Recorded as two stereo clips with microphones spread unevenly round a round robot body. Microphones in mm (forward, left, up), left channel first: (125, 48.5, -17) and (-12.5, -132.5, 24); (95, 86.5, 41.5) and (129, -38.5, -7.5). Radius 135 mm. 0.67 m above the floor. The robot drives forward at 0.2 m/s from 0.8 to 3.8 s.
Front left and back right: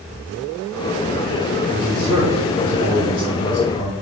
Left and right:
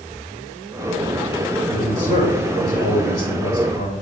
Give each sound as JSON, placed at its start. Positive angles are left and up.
{"t": 1.7, "sound": "a man speaking", "azimuth_deg": 95, "distance_m": 3.0}